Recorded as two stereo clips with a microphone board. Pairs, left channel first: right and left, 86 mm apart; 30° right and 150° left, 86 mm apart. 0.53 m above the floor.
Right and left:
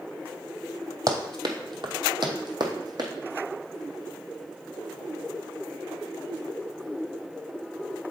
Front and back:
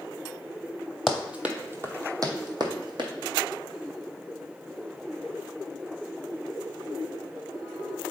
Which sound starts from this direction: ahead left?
Running footsteps, at 1.1 s.